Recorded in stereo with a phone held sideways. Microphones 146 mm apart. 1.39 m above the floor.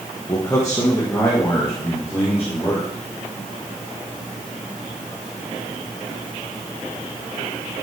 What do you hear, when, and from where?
0.3 s a man speaking: 25° left (ahead or behind), 1.0 m; by 2.9 s 20° left (ahead or behind), 4 m